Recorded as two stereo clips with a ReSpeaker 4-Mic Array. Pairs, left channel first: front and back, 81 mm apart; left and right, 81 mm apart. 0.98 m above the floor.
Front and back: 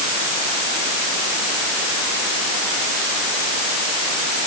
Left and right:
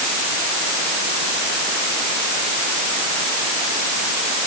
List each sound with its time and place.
Only background noise.